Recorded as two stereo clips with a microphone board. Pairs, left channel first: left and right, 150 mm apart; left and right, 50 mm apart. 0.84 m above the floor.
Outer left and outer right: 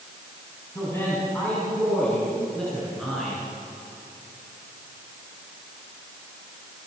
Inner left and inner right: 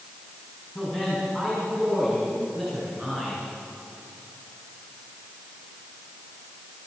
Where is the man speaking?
20° left (ahead or behind), 7 m; by 3.4 s centre (ahead or behind), 10 m.